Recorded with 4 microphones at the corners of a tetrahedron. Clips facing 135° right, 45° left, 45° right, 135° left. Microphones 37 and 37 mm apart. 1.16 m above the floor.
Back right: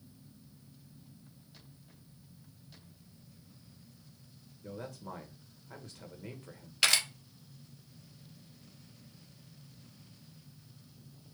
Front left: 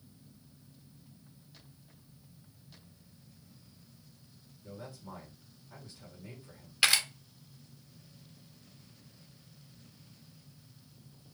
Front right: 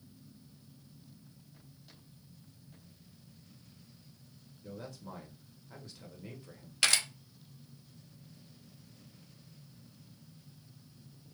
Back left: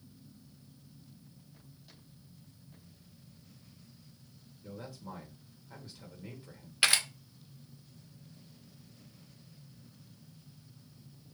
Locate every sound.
4.6 s a man speaking: 140° right, 1.1 m
6.8 s a camera shutter: 110° left, 0.5 m